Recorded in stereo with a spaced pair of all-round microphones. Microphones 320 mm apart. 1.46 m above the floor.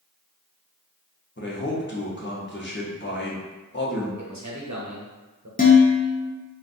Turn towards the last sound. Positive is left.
turn(degrees=25)  # may be behind; listen again after turning